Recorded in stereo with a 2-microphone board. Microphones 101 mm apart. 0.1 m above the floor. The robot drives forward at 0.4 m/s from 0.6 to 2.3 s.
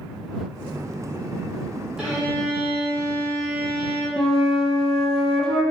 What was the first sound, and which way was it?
A violin, 5° right (ahead or behind).